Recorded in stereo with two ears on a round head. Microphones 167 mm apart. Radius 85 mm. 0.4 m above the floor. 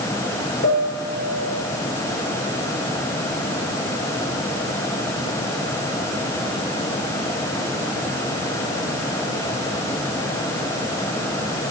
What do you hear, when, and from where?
0.6 s a piano: 55° left (ahead or behind), 5 m